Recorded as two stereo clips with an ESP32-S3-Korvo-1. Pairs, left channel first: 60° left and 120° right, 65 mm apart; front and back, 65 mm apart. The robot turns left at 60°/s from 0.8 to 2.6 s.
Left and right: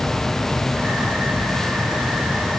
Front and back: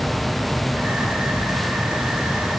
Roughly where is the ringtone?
No ringtone in this recording.